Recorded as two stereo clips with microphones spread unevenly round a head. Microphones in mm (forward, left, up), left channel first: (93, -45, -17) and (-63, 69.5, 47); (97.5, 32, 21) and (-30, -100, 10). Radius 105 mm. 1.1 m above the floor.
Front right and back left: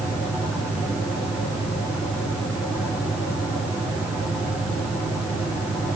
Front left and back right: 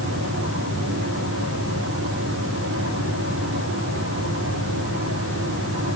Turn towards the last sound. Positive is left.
turn(degrees=-130)